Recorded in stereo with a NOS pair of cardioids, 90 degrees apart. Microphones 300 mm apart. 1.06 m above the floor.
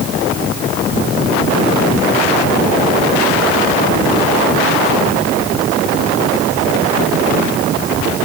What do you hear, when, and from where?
Only background noise.